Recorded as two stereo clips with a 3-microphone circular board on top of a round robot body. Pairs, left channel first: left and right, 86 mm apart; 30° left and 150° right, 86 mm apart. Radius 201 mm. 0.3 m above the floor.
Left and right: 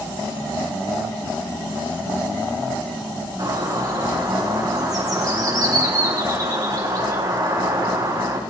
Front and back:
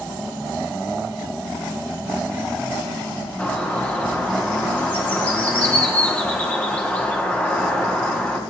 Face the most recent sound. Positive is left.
turn(degrees=-40)